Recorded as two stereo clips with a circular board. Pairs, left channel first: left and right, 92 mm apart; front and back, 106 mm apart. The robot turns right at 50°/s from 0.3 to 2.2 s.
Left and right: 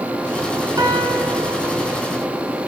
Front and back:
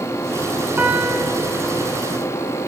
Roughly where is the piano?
Behind right.